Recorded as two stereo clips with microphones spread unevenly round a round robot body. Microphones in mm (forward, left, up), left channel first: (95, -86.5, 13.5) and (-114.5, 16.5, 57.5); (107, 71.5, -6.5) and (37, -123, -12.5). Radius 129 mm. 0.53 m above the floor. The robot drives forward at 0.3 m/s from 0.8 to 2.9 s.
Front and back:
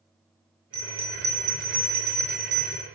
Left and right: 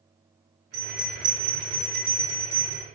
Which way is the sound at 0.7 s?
135° right.